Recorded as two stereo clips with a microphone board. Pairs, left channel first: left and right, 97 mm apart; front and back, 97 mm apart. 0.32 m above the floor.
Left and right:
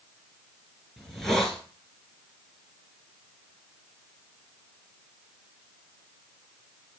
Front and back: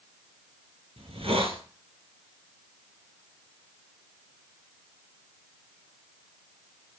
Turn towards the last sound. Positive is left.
turn(degrees=175)